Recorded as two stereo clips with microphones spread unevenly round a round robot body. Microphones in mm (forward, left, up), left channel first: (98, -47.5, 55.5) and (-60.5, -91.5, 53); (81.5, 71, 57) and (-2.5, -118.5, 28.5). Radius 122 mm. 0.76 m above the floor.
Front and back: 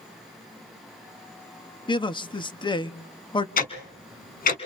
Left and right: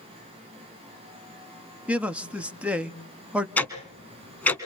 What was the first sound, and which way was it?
A man speaking, 40° right.